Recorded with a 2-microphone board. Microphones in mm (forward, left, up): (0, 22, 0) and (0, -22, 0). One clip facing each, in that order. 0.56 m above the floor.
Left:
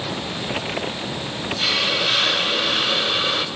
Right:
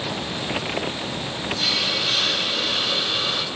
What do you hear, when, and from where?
1.6 s a hiss: 30° left (ahead or behind), 0.6 m